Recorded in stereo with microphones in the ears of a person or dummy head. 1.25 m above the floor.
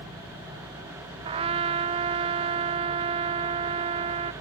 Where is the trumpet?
30° right (ahead or behind).